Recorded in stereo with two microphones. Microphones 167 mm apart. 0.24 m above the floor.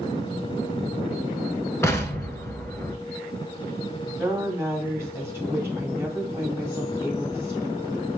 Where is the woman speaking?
15° right (ahead or behind), 1.6 m.